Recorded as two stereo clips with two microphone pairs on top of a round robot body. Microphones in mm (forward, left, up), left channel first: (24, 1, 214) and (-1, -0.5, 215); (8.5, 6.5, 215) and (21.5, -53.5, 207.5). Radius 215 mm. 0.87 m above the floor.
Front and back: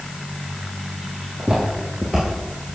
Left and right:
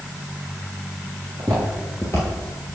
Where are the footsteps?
125° right, 0.9 m; by 2.7 s 70° left, 1.3 m.